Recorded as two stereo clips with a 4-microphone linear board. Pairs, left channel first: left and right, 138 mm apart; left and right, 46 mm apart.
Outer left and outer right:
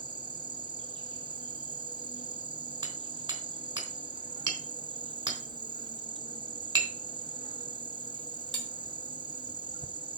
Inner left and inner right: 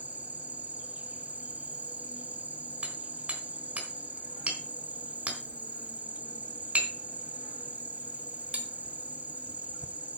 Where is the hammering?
35° right (ahead or behind), 3.5 m.